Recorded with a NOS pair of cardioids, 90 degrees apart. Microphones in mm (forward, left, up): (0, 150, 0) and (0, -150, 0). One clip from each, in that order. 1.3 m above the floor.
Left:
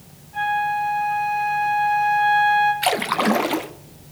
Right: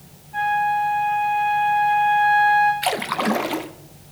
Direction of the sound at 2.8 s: 10° left.